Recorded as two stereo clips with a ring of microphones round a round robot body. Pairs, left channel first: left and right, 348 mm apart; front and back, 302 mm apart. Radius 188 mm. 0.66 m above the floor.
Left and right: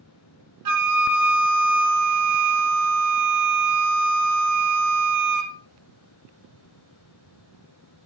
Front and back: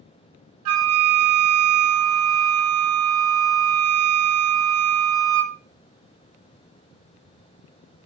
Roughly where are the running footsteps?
I don't hear running footsteps.